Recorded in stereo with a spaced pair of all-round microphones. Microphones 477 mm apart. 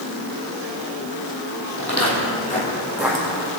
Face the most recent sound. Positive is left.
turn(degrees=-20)  # may be behind; listen again after turning